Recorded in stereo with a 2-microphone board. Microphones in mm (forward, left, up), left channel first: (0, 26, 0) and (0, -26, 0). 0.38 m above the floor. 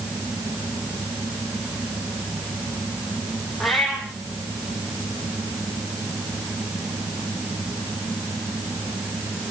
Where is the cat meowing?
Centre (ahead or behind), 3.5 m.